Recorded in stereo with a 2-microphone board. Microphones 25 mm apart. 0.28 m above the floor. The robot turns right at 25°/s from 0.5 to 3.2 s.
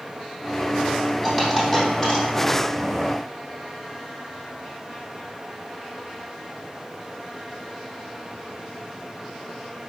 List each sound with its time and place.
1.2 s a dropped coin: 15° right (ahead or behind), 5.5 m; by 2.2 s 10° left (ahead or behind), 5.5 m